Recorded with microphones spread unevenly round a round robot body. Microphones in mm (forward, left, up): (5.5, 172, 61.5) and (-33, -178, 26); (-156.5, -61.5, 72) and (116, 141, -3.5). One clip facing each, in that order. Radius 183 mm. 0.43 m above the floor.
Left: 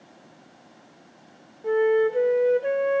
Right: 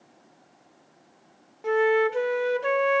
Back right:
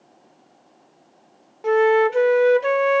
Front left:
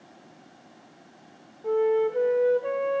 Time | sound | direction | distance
1.6 | a flute | 160° right | 0.6 m